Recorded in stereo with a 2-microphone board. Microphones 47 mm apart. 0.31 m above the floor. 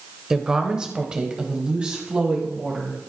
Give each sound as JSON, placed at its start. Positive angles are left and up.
{"t": 0.3, "sound": "a woman speaking", "side_deg": -10, "distance_m": 0.8}